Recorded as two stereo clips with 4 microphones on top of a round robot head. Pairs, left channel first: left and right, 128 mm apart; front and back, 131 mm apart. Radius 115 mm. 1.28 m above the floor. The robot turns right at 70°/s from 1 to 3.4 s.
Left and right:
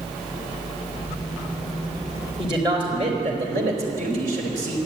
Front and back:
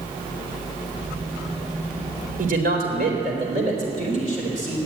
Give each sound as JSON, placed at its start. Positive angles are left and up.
{"t": 2.4, "sound": "a man speaking", "azimuth_deg": 155, "distance_m": 4.0}